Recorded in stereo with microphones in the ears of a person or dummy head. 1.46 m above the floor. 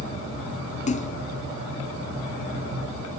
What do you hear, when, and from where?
0.9 s a splash: 35° left (ahead or behind), 0.6 m